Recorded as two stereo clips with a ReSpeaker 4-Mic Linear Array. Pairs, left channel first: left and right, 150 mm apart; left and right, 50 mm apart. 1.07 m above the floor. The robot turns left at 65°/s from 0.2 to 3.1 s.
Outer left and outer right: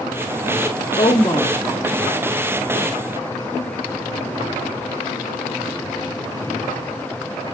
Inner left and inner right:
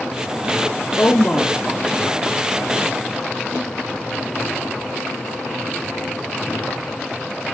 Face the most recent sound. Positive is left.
turn(degrees=-90)